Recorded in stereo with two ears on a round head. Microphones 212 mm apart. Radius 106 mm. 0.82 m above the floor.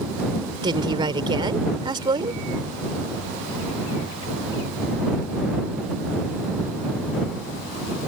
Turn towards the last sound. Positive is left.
turn(degrees=-20)  # may be behind; listen again after turning